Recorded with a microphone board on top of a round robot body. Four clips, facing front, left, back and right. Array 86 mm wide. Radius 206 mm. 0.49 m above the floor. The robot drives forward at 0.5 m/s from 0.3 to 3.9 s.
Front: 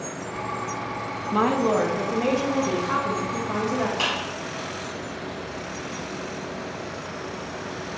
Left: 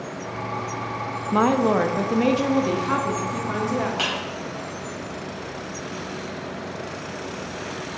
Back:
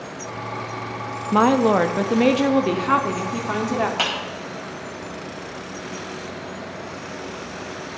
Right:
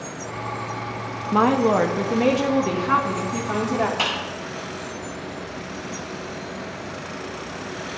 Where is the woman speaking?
170° left, 0.9 m; by 3.9 s straight behind, 1.8 m.